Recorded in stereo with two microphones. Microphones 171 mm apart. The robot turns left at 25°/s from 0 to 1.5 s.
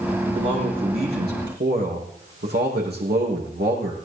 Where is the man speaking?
45° right, 5.5 m; by 4.0 s 75° right, 5.5 m.